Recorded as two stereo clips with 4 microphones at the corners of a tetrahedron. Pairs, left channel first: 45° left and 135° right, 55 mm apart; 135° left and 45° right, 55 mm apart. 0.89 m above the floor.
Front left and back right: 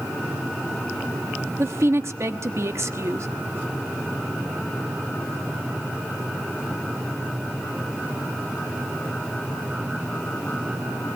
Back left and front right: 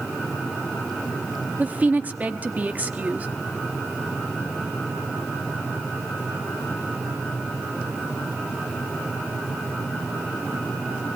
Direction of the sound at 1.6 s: 105° right.